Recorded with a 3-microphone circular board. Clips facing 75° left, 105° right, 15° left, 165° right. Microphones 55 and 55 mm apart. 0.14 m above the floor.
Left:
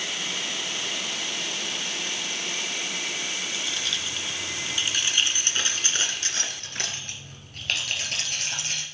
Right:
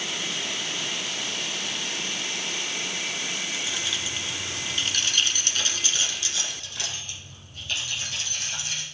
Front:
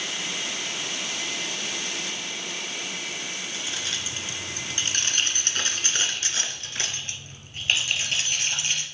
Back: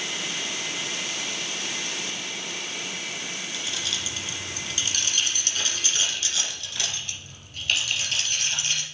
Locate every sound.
3.5 s keys jangling: 35° right, 1.6 m; by 8.8 s 80° left, 2.5 m